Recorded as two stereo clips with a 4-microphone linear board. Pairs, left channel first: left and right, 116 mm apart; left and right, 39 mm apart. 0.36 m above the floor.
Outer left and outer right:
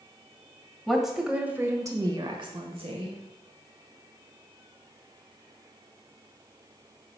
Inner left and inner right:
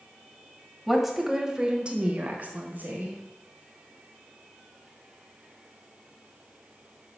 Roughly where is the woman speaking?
Centre.